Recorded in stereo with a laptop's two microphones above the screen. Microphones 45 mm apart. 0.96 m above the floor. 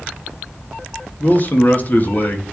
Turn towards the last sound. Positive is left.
turn(degrees=40)  # may be behind; listen again after turning